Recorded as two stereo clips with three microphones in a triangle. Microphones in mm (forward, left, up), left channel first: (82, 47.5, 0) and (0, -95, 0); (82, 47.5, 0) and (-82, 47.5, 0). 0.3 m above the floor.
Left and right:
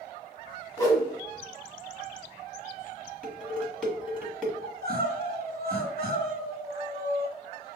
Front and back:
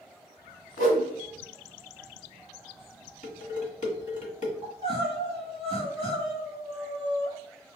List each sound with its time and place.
0.8 s a whoosh: 5° right, 1.4 m
3.2 s dishes clattering: 20° right, 1.4 m
4.6 s crying: 125° right, 1.6 m